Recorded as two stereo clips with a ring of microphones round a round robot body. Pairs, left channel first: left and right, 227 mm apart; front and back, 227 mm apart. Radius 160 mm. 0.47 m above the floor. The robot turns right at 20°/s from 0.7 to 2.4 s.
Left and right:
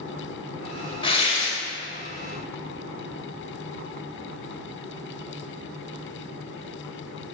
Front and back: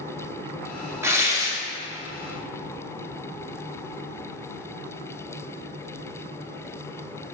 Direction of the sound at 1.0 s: 120° left.